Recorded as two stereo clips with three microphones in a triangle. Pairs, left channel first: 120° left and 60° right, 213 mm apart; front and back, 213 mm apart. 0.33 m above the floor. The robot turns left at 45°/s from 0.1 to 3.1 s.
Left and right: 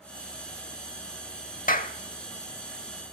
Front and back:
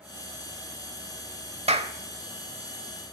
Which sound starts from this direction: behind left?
A clap, at 1.7 s.